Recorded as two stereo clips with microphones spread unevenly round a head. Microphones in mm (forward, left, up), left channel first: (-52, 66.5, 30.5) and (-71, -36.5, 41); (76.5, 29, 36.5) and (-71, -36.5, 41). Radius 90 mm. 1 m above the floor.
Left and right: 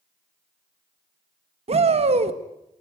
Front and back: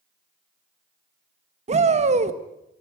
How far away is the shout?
About 1.8 m.